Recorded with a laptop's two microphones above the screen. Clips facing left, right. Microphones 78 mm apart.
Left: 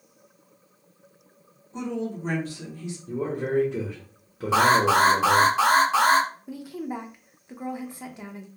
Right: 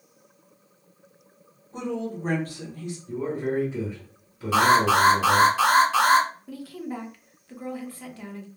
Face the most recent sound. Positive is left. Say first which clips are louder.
# left 1 dB
turn(degrees=20)  # may be behind; listen again after turning